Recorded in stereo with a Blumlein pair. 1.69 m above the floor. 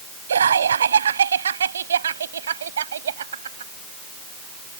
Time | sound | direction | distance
0.3 | laughter | 70° right | ?